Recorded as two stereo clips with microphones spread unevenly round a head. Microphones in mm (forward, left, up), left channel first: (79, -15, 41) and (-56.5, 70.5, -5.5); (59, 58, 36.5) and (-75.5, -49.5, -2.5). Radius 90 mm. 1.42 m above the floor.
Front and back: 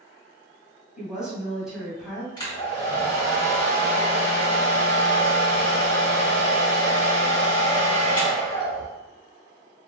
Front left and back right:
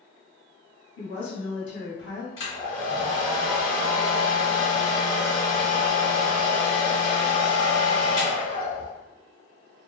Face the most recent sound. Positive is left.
turn(degrees=5)